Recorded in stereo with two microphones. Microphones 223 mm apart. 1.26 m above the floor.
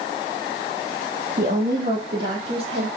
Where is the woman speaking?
40° right (ahead or behind), 0.9 m; by 2.9 s 50° right (ahead or behind), 2.5 m.